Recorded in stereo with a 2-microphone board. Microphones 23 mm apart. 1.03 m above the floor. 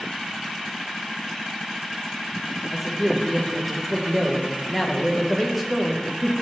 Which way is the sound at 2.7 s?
5° left (ahead or behind).